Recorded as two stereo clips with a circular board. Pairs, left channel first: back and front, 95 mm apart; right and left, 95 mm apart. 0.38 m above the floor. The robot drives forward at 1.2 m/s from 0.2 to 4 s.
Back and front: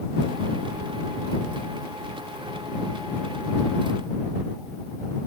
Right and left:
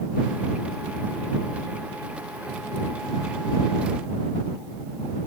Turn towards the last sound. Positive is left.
No sound to turn to.